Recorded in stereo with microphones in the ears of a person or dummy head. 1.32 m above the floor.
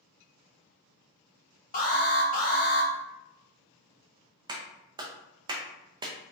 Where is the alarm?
40° left (ahead or behind), 1.1 m.